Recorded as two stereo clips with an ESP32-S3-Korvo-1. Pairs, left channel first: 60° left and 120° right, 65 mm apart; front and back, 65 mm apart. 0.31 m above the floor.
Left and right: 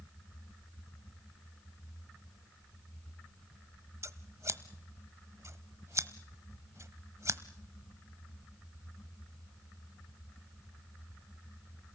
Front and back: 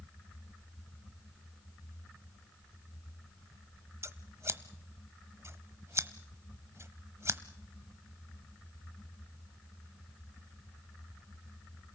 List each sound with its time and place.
4.0 s scissors: 150° right, 0.9 m